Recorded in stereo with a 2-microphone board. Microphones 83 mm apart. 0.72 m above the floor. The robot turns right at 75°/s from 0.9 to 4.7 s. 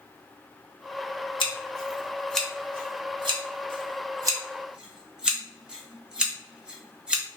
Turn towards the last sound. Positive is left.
turn(degrees=-10)  # may be behind; listen again after turning